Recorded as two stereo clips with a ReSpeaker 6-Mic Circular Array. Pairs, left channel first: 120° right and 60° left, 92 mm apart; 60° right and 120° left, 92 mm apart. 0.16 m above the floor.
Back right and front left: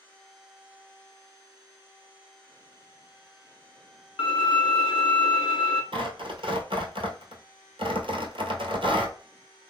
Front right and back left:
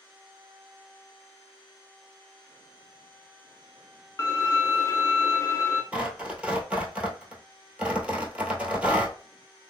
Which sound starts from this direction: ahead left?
Tearing paper, at 5.9 s.